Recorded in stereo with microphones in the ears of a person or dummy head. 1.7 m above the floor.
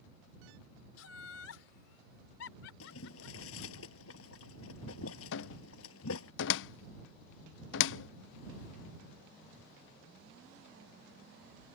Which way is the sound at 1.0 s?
85° left.